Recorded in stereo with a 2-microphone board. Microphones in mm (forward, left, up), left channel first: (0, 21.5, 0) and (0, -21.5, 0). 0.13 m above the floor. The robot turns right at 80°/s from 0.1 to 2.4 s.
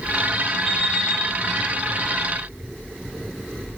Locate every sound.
0.7 s an alarm clock: 165° left, 3.5 m; by 1.2 s 145° right, 3.5 m